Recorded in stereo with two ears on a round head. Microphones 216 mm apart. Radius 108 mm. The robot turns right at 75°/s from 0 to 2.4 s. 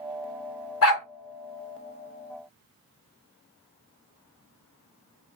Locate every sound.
0.8 s a dog barking: 65° left (ahead or behind), 2 m